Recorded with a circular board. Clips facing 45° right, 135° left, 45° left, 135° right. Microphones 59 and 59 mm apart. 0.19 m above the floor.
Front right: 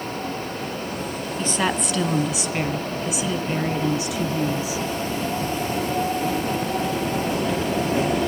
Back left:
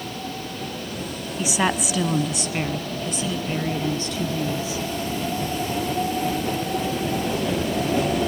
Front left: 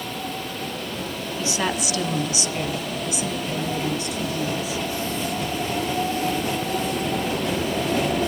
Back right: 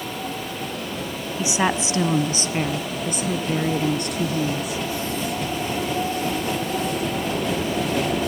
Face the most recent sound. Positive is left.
turn(degrees=-120)